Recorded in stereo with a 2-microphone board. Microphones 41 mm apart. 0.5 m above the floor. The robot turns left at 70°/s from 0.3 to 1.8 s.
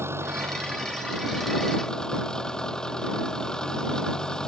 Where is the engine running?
90° right; by 4.5 s 165° left.